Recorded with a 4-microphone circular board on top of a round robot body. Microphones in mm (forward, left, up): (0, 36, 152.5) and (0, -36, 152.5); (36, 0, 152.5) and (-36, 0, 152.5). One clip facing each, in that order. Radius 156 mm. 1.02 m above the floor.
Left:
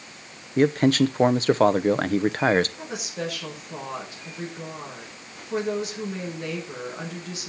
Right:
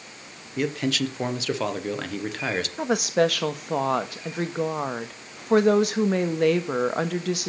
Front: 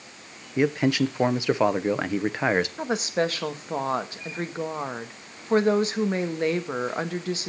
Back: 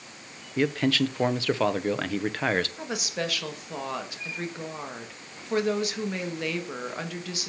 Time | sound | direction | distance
0.6 | a man speaking | 65° left | 1.0 m
2.8 | a woman speaking | 55° right | 1.5 m